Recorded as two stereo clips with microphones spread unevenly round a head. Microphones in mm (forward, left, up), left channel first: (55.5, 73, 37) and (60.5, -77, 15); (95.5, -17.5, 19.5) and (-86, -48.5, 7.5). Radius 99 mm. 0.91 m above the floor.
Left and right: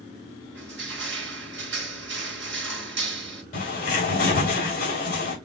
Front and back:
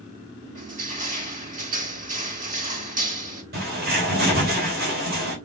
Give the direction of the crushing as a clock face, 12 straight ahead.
4 o'clock.